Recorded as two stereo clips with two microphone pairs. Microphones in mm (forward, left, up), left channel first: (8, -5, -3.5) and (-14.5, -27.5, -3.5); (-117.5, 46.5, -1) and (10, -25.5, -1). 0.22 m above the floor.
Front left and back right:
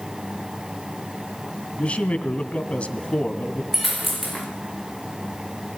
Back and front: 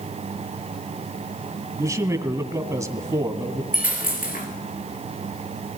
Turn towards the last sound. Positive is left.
turn(degrees=130)